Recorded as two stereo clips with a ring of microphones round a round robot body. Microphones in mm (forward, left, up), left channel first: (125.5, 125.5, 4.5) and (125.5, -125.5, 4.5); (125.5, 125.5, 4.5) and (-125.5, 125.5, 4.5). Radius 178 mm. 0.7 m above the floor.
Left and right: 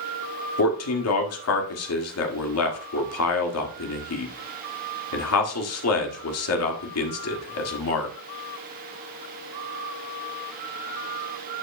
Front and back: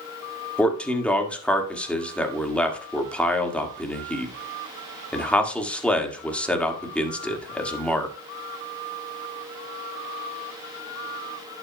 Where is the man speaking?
85° left, 1.7 m.